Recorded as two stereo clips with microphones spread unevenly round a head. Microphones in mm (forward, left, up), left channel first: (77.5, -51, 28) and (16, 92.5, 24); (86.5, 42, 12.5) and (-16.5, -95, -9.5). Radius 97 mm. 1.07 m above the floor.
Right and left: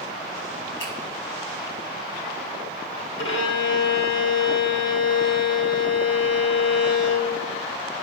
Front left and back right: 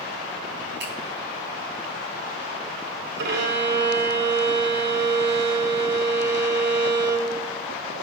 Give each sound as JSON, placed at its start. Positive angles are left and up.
{"t": 0.8, "sound": "a finger snap", "azimuth_deg": -105, "distance_m": 5.5}
{"t": 3.2, "sound": "a violin", "azimuth_deg": -100, "distance_m": 1.7}